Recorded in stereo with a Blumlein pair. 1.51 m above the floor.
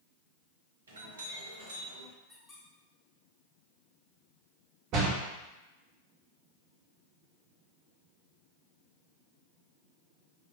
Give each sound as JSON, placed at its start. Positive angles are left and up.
{"t": 0.9, "sound": "a clink", "azimuth_deg": -70, "distance_m": 1.2}
{"t": 2.3, "sound": "a squeak", "azimuth_deg": 20, "distance_m": 1.5}
{"t": 4.9, "sound": "a door slam", "azimuth_deg": -35, "distance_m": 1.0}